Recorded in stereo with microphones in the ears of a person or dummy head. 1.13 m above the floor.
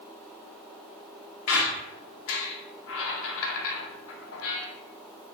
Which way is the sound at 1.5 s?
75° left (ahead or behind).